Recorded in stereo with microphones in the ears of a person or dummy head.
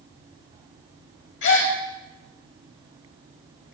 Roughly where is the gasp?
Left.